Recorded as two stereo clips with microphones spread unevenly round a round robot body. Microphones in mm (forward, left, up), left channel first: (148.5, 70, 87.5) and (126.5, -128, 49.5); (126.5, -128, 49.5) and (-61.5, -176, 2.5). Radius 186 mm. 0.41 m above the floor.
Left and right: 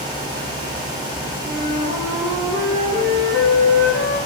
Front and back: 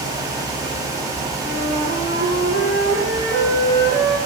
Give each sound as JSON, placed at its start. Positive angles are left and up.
{"t": 1.4, "sound": "a flute", "azimuth_deg": -165, "distance_m": 3.5}